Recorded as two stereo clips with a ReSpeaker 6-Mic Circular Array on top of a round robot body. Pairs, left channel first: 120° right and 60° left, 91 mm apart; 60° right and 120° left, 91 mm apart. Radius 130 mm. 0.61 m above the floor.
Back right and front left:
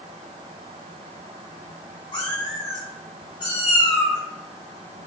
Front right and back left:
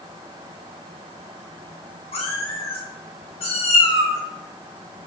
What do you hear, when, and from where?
2.1 s a cat meowing: 85° right, 3.5 m